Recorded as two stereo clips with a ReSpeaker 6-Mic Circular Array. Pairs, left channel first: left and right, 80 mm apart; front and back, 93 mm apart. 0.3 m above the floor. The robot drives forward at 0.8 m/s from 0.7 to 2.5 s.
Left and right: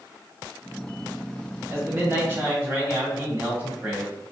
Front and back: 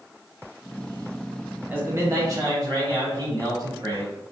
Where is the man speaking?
120° right, 1.2 m; by 4.3 s 145° right, 1.5 m.